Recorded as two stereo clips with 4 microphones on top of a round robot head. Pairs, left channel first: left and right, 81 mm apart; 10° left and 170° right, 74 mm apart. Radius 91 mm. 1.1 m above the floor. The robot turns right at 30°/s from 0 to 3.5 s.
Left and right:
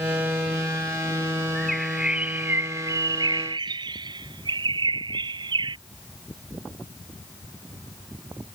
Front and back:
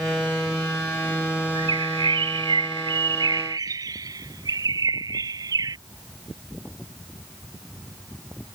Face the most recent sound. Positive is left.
turn(degrees=-125)